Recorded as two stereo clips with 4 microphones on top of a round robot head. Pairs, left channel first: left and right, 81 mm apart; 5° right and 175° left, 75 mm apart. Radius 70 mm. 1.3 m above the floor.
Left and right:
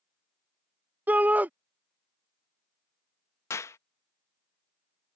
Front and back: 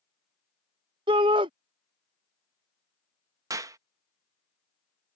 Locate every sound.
1.1 s a shout: 160° right
3.5 s a clap: 140° left